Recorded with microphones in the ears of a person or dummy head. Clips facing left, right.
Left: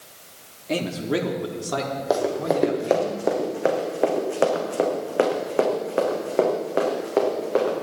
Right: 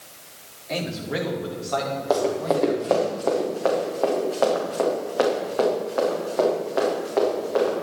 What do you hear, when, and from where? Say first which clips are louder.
0.7 s a man speaking: left 4 dB; 45° left (ahead or behind), 2 m; by 3.1 s 60° left (ahead or behind), 3.5 m
2.1 s running footsteps: even; 10° left (ahead or behind), 2.5 m; by 7.7 s 45° left (ahead or behind), 5 m